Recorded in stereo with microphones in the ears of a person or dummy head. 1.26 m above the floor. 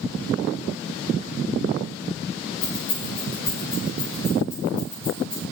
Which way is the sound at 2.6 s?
30° left (ahead or behind).